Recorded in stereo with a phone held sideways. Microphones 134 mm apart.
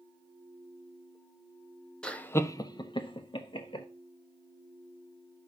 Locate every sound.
2.0 s laughter: 5° left (ahead or behind), 0.8 m; by 3.9 s 40° left (ahead or behind), 1.2 m